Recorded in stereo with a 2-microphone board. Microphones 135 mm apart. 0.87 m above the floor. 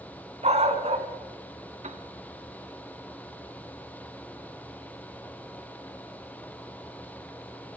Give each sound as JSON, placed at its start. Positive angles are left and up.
{"t": 0.4, "sound": "a dog barking", "side_deg": -50, "distance_m": 2.5}
{"t": 1.8, "sound": "a piano", "side_deg": -50, "distance_m": 1.6}